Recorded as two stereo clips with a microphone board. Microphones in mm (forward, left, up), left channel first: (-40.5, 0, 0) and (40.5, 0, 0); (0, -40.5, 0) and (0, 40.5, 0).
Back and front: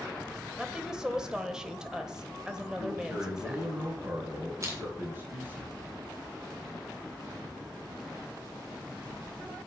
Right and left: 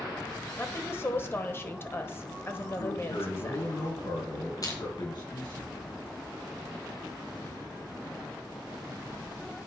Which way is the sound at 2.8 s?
60° right.